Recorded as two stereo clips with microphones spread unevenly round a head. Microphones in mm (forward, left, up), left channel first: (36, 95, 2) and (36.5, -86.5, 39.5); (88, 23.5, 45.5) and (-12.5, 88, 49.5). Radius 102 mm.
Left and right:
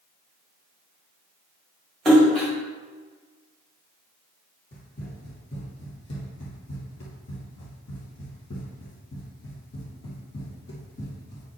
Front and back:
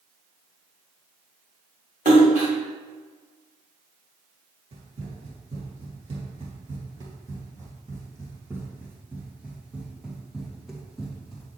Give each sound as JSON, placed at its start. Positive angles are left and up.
{"t": 2.0, "sound": "a splash", "azimuth_deg": -170, "distance_m": 1.7}
{"t": 4.7, "sound": "running footsteps", "azimuth_deg": 140, "distance_m": 2.5}